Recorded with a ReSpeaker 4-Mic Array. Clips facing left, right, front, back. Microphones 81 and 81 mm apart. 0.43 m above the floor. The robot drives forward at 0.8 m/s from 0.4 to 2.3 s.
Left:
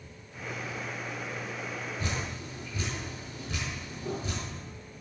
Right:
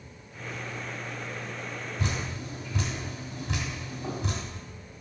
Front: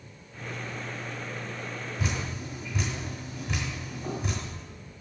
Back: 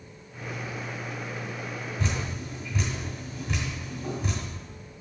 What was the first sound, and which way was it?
Dripping, 80° right.